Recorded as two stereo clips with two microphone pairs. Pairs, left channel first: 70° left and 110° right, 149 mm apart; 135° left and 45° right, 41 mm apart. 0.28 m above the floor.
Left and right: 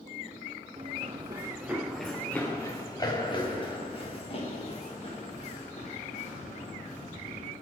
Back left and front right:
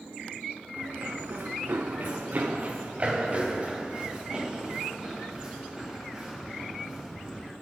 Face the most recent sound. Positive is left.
turn(degrees=35)